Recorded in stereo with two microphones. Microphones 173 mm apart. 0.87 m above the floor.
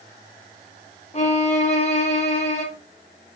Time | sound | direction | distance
1.1 | a violin | 40° left (ahead or behind) | 2.5 m